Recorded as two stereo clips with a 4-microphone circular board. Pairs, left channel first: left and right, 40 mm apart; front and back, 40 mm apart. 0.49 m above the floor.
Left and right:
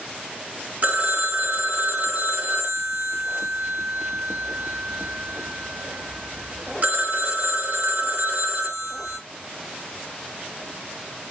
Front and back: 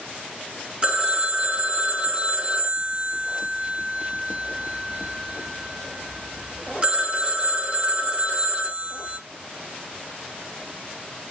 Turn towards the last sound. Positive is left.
turn(degrees=-125)